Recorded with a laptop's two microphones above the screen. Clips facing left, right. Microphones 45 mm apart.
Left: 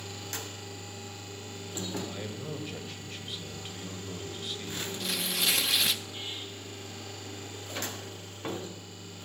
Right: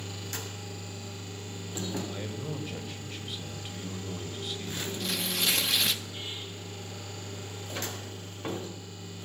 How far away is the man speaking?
About 5 m.